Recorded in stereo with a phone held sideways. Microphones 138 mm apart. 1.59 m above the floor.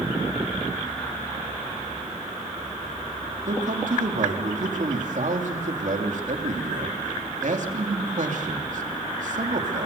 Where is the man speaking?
65° right (ahead or behind), 3 m.